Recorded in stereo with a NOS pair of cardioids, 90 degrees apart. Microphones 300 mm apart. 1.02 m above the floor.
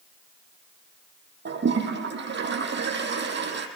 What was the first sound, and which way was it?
A toilet flushing, 35° right.